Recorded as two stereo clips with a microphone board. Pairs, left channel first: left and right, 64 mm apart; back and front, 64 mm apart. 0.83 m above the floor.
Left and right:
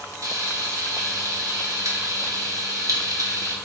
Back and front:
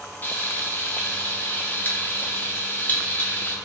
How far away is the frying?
About 0.7 m.